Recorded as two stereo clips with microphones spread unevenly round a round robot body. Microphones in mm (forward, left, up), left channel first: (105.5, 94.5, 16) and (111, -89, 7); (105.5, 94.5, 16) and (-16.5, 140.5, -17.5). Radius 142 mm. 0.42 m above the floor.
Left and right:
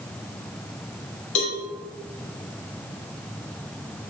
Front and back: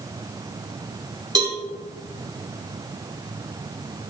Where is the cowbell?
100° left, 2.5 m.